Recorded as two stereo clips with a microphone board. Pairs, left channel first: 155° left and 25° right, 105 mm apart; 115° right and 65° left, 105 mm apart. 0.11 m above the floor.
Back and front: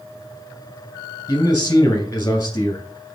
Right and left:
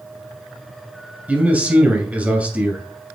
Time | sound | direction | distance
1.3 | a man speaking | 125° left | 1.7 m